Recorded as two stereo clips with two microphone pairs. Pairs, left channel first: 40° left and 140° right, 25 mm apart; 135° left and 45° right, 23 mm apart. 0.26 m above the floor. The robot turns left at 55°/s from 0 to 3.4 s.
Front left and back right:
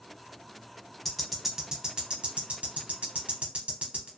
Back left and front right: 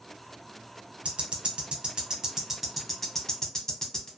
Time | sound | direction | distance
1.1 | ticking | 40° right | 0.8 m